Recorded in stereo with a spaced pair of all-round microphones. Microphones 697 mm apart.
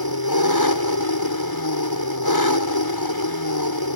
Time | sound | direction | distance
0.0 | an engine running | 30° left (ahead or behind) | ?